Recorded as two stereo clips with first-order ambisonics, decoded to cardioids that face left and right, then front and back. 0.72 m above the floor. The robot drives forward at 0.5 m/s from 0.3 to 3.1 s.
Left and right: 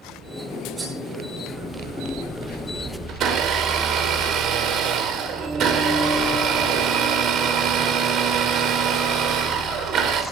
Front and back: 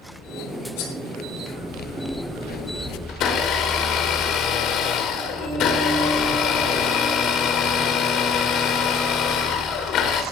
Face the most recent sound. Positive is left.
turn(degrees=-45)